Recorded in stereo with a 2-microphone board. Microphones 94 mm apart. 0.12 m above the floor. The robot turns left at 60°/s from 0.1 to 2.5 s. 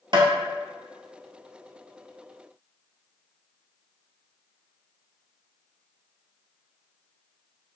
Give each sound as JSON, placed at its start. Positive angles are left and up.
{"t": 0.1, "sound": "tapping", "side_deg": -60, "distance_m": 1.0}